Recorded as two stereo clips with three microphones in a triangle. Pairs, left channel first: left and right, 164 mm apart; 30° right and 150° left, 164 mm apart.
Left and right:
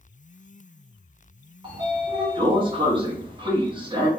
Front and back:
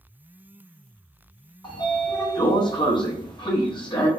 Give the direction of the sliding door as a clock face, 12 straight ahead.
2 o'clock.